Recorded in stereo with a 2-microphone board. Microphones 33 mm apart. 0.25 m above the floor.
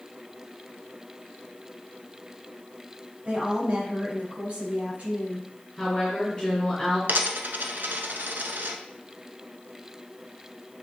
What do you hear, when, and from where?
3.2 s a woman speaking: 35° right (ahead or behind), 3.5 m
5.8 s a woman speaking: 20° left (ahead or behind), 2.5 m
7.1 s a dropped coin: 80° right, 0.8 m